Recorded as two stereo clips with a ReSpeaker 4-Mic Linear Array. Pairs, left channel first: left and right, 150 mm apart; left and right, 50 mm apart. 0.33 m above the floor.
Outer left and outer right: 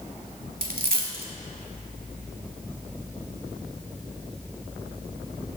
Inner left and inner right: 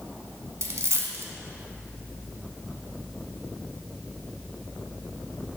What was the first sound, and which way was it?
A dropped coin, 70° right (ahead or behind).